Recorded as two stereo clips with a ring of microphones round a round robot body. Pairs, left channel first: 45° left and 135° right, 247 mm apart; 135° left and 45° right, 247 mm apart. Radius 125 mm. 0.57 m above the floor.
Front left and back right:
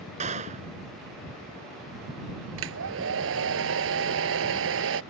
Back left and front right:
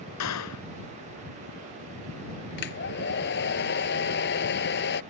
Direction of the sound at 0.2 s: 160° left.